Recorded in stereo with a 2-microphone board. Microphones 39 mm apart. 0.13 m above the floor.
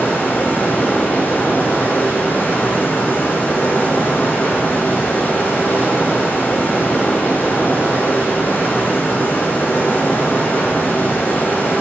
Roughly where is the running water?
Left.